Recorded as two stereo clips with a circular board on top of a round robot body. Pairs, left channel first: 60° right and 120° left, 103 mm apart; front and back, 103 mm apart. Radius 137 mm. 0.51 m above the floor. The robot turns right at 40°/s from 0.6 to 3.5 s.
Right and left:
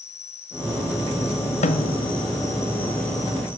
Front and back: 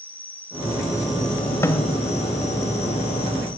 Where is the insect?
75° right, 1.1 m; by 3.6 s 40° left, 1.1 m.